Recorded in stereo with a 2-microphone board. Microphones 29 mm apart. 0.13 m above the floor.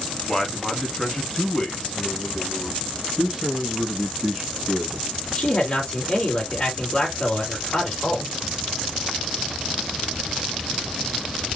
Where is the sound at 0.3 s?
10° left (ahead or behind), 1.2 m; by 2.8 s 25° left (ahead or behind), 2 m.